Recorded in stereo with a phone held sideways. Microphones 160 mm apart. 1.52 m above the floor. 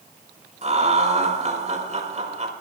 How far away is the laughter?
About 5 m.